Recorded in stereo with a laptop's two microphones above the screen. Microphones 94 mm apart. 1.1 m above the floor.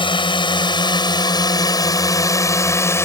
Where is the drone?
65° left (ahead or behind); by 3.1 s 30° left (ahead or behind).